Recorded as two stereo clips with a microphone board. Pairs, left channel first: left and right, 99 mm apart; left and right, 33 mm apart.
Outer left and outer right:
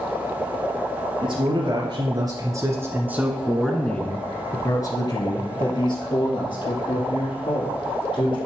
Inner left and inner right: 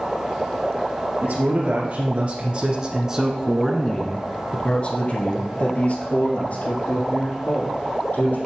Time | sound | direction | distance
1.2 | a man speaking | 55° right (ahead or behind) | 2.5 m